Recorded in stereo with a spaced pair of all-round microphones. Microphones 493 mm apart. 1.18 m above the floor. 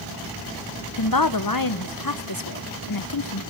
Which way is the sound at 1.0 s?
45° left (ahead or behind).